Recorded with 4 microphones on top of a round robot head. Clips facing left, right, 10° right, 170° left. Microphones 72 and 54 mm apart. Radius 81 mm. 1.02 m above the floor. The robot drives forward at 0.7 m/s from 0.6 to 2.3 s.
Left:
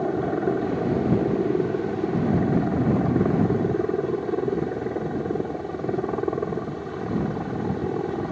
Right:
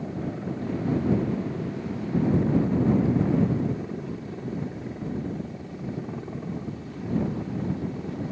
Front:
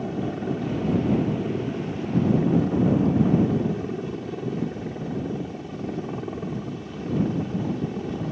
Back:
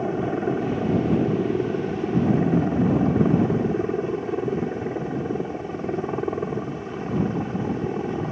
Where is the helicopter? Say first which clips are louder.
Left 9 dB, back 4 dB; 115° left.